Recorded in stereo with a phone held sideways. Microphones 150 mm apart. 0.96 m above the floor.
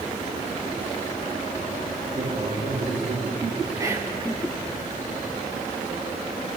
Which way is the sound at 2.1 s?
60° right (ahead or behind).